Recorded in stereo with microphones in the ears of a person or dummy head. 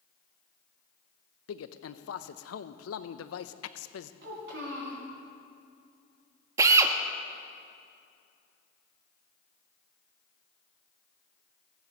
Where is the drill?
20° right (ahead or behind), 0.9 m.